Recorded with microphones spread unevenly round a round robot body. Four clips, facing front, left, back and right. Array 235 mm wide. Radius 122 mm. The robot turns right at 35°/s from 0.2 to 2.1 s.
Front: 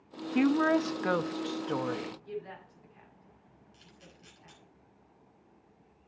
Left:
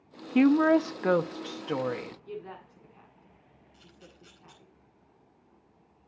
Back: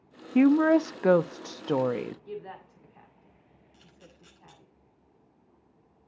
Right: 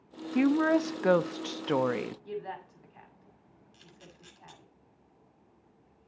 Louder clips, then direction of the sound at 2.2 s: Right 3 dB, back 1 dB; 100° right.